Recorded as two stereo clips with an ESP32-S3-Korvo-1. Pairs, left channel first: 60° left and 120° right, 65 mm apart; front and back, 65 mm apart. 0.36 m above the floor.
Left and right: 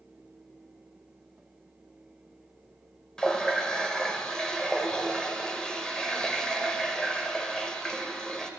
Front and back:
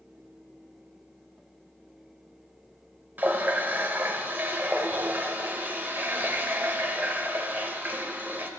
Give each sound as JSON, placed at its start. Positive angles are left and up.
{"t": 3.2, "sound": "a running tap", "azimuth_deg": 135, "distance_m": 0.7}